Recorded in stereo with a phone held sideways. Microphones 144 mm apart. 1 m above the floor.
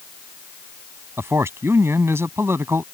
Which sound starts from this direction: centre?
A man speaking, at 1.2 s.